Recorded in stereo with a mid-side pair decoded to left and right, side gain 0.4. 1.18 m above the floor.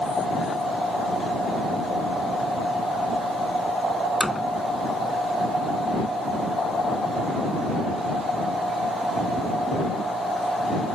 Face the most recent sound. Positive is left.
turn(degrees=10)